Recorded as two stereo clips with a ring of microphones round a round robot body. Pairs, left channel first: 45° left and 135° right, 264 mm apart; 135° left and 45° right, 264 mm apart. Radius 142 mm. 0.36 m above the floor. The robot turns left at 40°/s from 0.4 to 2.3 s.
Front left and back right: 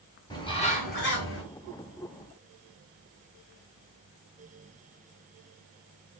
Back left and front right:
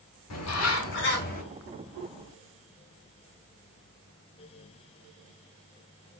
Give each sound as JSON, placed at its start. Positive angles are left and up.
{"t": 0.3, "sound": "a bird", "azimuth_deg": 120, "distance_m": 2.0}